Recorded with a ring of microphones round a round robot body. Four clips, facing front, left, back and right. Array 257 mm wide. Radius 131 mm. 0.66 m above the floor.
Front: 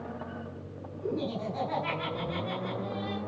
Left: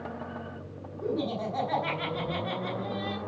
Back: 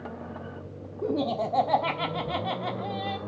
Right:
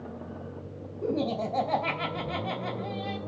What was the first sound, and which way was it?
Laughter, 150° right.